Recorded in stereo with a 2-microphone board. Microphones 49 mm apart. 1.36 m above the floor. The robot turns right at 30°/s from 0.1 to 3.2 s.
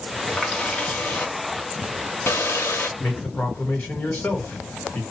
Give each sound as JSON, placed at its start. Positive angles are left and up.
{"t": 0.3, "sound": "a running tap", "azimuth_deg": 15, "distance_m": 0.9}
{"t": 3.0, "sound": "a man speaking", "side_deg": 40, "distance_m": 1.5}